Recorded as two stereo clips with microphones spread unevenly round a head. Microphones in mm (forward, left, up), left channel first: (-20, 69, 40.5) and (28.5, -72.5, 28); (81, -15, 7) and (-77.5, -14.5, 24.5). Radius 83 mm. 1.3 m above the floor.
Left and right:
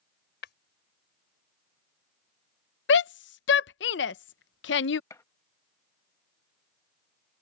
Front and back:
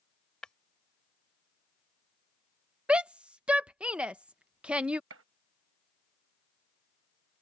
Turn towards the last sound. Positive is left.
turn(degrees=180)